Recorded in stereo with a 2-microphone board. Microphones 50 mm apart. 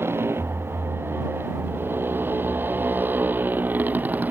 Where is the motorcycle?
50° right (ahead or behind); by 4.3 s 35° right (ahead or behind).